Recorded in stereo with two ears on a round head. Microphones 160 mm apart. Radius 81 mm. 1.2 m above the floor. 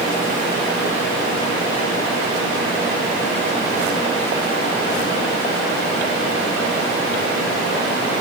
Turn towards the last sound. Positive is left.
No sound to turn to.